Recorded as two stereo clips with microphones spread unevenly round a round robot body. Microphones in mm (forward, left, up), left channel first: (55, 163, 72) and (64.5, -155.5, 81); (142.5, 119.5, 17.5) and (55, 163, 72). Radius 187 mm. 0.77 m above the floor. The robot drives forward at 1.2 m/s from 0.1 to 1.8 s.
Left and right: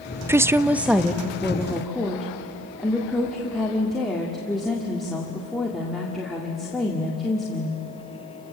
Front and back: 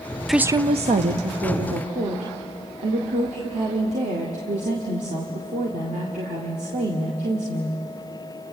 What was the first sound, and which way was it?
A woman speaking, 10° right.